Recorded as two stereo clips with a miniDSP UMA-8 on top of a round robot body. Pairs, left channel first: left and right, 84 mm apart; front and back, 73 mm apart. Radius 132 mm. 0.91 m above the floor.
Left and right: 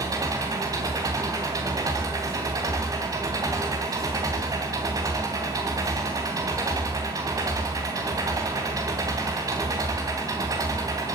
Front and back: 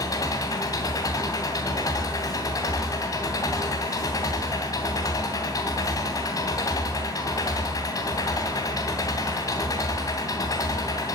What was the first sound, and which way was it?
An engine running, 40° right.